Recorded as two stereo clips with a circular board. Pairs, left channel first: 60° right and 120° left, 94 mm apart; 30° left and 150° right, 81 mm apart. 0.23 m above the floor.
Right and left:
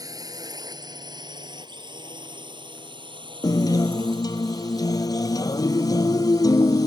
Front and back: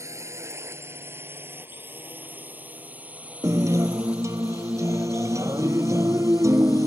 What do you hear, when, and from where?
0.0 s a drone: 165° left; by 6.9 s 130° left
3.4 s a guitar: 105° right